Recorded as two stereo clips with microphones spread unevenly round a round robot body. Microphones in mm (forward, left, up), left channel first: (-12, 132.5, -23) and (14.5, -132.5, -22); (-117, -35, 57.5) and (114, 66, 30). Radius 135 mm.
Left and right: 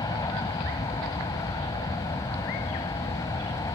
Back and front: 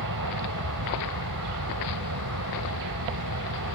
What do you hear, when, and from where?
0.0 s an aircraft: 20° left